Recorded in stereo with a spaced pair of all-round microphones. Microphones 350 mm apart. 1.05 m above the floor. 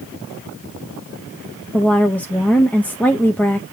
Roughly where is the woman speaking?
Centre.